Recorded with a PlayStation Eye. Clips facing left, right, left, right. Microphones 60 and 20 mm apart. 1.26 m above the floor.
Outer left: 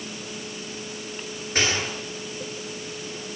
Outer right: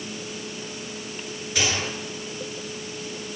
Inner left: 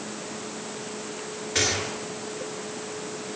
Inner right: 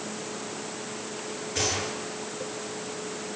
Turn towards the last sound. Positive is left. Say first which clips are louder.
# outer left 1 dB, inner left 3 dB
turn(degrees=40)  # may be behind; listen again after turning